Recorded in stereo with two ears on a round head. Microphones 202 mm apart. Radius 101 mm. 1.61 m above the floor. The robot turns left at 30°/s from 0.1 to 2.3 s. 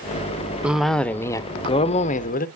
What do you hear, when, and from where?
0.6 s a cough: 175° right, 0.6 m; by 2.5 s 135° left, 0.6 m